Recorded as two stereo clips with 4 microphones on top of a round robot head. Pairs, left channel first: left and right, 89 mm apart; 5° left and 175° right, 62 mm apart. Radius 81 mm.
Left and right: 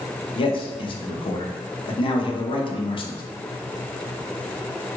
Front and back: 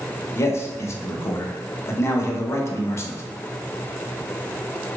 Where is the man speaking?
55° left, 0.6 m.